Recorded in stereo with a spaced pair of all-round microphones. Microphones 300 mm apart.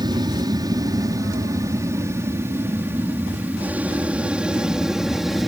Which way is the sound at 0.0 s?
15° right (ahead or behind).